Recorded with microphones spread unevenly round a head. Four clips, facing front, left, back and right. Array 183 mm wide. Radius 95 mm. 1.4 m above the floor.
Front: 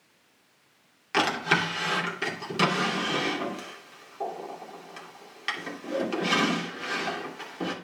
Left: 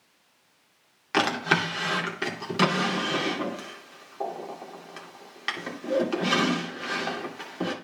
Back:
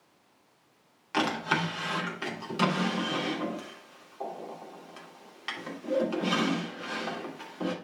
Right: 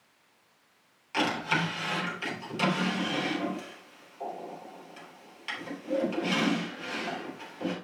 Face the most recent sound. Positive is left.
turn(degrees=70)